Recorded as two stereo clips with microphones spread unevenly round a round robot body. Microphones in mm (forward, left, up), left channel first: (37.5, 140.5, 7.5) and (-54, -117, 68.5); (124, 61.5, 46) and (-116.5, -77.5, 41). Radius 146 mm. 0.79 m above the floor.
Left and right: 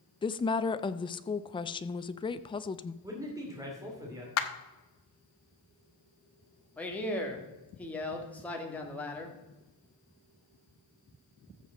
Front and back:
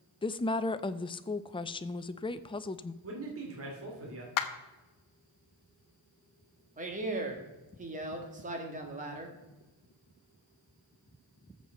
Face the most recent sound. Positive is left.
turn(degrees=150)